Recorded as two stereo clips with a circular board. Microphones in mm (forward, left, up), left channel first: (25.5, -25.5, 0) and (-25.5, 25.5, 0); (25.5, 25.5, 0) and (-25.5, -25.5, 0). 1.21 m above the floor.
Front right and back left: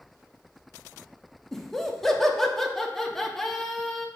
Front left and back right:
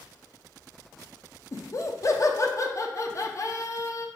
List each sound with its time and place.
1.5 s laughter: 40° left, 0.5 m